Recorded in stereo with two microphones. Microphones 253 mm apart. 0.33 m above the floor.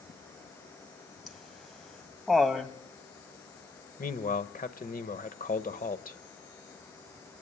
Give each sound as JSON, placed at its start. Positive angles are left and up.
{"t": 1.3, "sound": "laughter", "side_deg": 0, "distance_m": 2.0}
{"t": 4.0, "sound": "a man speaking", "side_deg": 35, "distance_m": 1.0}